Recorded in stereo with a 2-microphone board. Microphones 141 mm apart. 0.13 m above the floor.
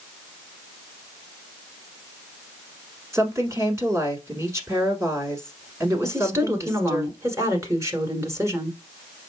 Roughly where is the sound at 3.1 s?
Right.